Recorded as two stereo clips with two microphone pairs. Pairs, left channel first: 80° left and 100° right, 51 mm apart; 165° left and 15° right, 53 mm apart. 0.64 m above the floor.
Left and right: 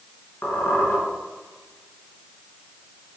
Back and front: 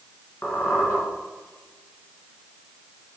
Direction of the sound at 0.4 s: 120° left.